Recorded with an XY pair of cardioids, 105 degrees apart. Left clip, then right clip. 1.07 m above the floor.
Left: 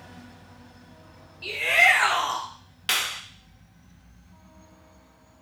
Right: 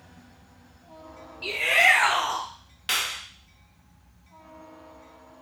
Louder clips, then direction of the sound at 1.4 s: Left 1 dB; 15° right.